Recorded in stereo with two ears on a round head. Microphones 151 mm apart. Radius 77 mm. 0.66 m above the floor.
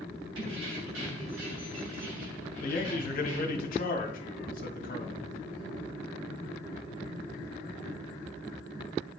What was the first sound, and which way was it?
Keys jangling, 75° right (ahead or behind).